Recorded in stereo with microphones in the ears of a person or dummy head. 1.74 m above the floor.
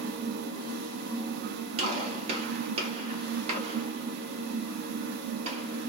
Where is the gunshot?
40° right (ahead or behind), 1.4 m.